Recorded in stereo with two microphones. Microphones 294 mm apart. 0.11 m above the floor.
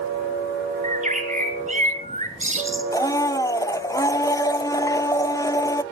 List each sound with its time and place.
0.8 s a bird: 25° right (ahead or behind), 1.9 m
2.9 s a blender: 15° left (ahead or behind), 0.6 m